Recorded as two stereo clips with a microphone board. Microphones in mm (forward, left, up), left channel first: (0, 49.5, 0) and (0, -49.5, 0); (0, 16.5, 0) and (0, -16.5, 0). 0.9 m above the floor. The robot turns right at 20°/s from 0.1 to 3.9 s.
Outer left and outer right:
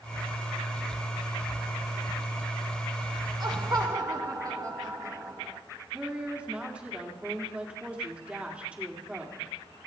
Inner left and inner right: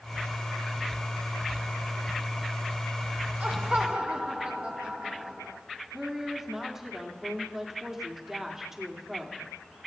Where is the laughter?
45° right (ahead or behind), 1.0 m; by 5.6 s 40° right (ahead or behind), 1.0 m.